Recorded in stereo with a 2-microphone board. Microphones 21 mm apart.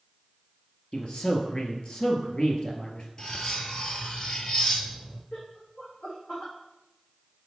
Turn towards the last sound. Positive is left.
turn(degrees=75)  # may be behind; listen again after turning